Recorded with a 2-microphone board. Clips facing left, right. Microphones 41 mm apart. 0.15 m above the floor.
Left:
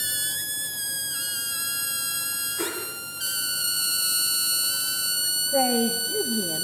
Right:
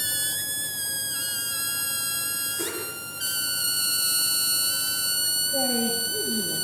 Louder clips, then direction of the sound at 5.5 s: Left 5 dB; 55° left (ahead or behind).